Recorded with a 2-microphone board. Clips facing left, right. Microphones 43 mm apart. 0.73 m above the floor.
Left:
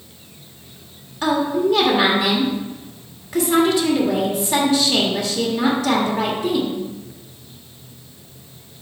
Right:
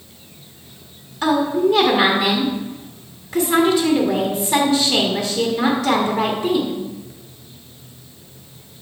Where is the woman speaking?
5° left (ahead or behind), 1.3 m.